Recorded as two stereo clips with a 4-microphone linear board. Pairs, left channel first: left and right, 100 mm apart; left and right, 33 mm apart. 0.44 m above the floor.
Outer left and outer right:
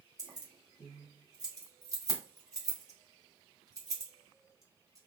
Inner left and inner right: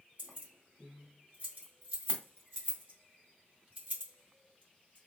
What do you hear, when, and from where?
0.2 s keys jangling: 35° right (ahead or behind), 2.0 m